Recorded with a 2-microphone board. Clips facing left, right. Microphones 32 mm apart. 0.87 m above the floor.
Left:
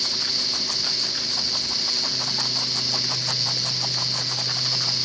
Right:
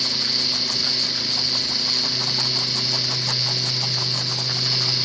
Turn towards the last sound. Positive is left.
No sound to turn to.